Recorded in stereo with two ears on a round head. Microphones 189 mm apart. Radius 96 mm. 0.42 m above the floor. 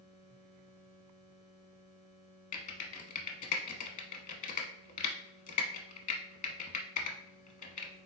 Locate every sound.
2.5 s typing on a keyboard: 35° left (ahead or behind), 0.7 m